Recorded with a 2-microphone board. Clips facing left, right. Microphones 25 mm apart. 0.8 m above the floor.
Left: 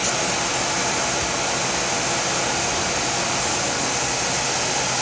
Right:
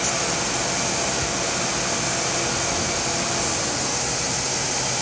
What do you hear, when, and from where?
Only background noise.